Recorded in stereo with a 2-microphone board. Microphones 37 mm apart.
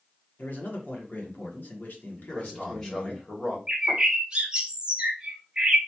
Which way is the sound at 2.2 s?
15° left (ahead or behind).